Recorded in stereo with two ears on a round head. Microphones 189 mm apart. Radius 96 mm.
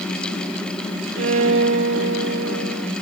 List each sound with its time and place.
1.2 s a violin: 65° right (ahead or behind), 1.5 m